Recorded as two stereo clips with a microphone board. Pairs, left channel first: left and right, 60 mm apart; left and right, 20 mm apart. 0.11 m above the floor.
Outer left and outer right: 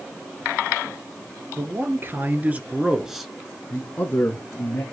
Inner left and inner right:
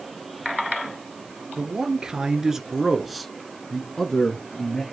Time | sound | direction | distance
1.6 | a man speaking | 45° right (ahead or behind) | 1.7 m